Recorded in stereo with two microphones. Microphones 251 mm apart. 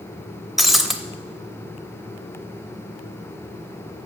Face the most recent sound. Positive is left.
turn(degrees=0)  # may be behind; listen again after turning